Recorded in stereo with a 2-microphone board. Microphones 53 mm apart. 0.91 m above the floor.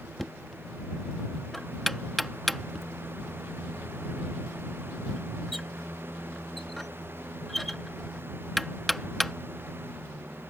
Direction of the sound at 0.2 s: Centre (ahead or behind).